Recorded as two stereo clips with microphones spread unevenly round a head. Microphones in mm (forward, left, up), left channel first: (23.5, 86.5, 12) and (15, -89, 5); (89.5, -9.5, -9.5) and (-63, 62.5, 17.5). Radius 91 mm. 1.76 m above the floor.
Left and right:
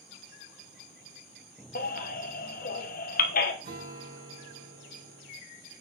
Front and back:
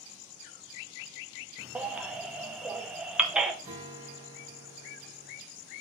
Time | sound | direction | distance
1.8 | a baby crying | 80° left | 1.0 m
3.6 | a guitar | 140° right | 5 m